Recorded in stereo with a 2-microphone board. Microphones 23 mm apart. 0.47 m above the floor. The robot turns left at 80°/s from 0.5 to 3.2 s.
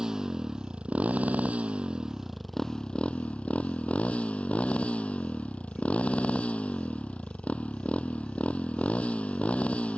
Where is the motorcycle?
25° right; by 10.0 s 120° left.